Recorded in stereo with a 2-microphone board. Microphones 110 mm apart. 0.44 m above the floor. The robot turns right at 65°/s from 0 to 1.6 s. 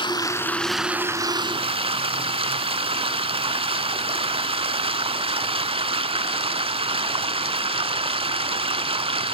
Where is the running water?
130° left, 0.7 m; by 9.3 s 125° right, 0.7 m.